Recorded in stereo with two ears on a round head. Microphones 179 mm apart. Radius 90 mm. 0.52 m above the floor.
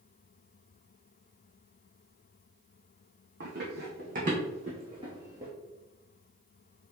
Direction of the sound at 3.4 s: 60° right (ahead or behind).